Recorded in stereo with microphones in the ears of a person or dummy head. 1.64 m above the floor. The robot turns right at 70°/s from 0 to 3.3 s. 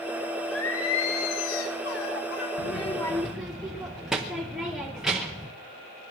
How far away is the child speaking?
About 0.7 m.